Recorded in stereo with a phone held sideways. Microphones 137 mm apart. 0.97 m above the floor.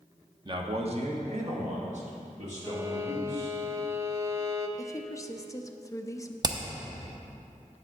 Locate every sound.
0.5 s a man speaking: 35° right (ahead or behind), 0.7 m; by 3.5 s 60° right (ahead or behind), 3.5 m
2.6 s a violin: 25° right (ahead or behind), 0.5 m
4.8 s a woman speaking: 25° left (ahead or behind), 0.5 m
6.4 s hammering: 30° right (ahead or behind), 0.6 m